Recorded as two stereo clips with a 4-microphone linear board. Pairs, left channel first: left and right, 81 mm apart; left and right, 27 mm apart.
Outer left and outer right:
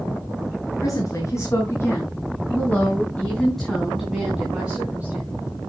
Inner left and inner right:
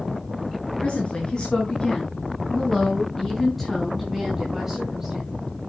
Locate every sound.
0.8 s a woman speaking: 45° left (ahead or behind), 5 m; by 5.3 s 20° right (ahead or behind), 5.5 m